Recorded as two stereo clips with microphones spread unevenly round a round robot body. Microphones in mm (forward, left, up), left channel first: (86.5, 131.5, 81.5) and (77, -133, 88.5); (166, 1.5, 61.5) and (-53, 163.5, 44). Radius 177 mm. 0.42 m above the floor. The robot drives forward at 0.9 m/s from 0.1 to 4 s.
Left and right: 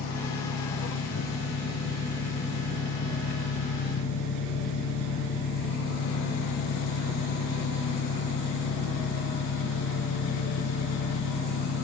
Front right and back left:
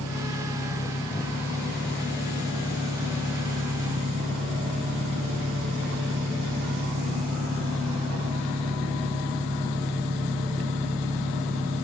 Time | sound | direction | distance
0.0 | an engine running | 40° left | ?